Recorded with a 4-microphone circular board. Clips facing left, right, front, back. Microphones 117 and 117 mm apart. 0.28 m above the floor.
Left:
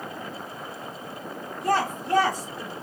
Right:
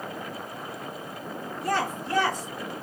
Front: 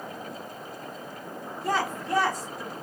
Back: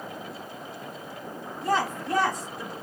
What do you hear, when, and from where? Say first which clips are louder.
1.6 s a woman speaking: left 3 dB, back 2 dB; 90° left, 2 m; by 2.7 s 85° left, 1.4 m